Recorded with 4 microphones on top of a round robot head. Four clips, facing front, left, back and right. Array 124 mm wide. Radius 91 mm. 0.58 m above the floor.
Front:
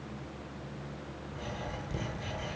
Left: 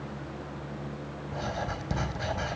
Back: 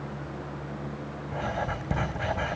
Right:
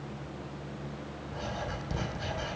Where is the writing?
160° left, 4 m.